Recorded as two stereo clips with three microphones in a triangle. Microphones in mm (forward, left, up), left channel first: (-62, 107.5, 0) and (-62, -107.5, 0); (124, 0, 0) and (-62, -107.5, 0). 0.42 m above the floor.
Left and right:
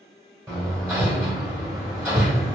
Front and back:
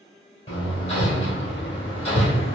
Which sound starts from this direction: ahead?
Hammering, at 0.5 s.